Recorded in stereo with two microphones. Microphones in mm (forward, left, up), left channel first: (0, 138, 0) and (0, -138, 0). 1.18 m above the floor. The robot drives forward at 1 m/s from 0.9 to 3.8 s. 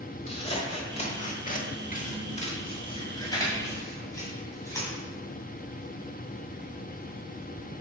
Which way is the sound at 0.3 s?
25° left (ahead or behind).